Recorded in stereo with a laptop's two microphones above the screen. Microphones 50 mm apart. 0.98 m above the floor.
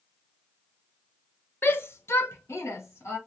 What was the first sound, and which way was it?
A shout, 45° left (ahead or behind).